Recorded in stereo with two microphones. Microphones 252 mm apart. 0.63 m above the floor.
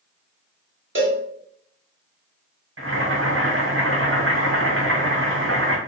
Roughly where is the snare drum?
I don't hear a snare drum.